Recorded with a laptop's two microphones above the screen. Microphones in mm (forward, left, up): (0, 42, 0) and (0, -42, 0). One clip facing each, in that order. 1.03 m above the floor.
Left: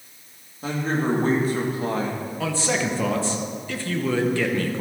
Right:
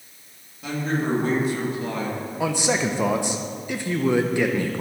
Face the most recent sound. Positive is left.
turn(degrees=-15)  # may be behind; listen again after turning